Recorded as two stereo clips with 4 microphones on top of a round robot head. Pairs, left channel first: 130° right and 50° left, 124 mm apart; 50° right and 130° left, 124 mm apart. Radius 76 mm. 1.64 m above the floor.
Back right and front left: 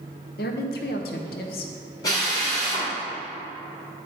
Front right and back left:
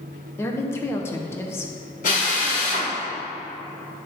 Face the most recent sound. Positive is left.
turn(degrees=-70)